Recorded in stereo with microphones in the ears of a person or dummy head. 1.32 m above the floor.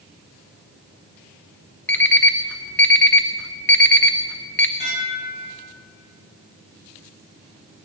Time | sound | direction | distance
1.9 | an alarm clock | 5° left (ahead or behind) | 0.6 m
4.8 | dishes clattering | 45° left (ahead or behind) | 6 m